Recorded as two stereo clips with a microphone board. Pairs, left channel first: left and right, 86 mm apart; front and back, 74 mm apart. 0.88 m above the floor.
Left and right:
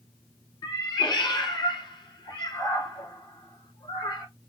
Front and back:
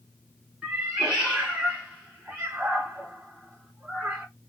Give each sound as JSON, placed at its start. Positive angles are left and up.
{"t": 0.6, "sound": "a cat meowing", "azimuth_deg": 105, "distance_m": 1.6}